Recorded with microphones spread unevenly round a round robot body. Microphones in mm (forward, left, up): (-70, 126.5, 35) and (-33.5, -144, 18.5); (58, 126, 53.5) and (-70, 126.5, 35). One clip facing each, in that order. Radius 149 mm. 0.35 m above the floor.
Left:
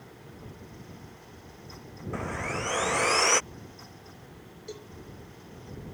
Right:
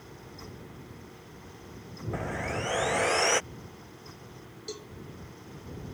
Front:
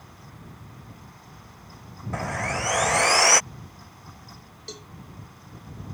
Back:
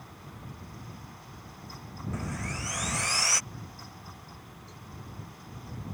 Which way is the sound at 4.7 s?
10° right.